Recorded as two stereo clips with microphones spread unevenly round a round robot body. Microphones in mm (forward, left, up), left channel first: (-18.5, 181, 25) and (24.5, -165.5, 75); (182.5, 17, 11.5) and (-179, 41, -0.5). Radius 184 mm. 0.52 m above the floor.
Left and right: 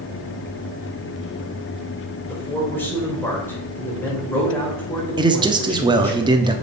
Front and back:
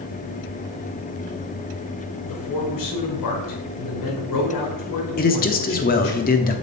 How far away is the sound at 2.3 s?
About 2 m.